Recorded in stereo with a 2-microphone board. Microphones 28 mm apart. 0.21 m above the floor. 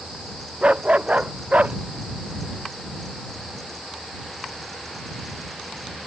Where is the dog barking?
45° right (ahead or behind); by 1.8 s 50° right (ahead or behind).